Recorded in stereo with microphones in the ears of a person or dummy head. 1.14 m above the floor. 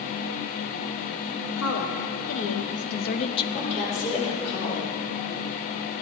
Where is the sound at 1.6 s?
70° left (ahead or behind), 2 m; by 3.4 s 15° left (ahead or behind), 0.6 m.